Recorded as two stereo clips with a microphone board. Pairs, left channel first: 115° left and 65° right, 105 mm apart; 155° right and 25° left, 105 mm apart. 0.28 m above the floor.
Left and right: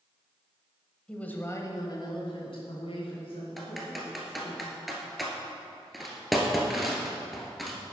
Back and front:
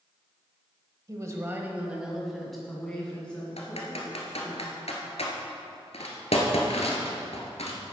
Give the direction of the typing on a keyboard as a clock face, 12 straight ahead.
5 o'clock.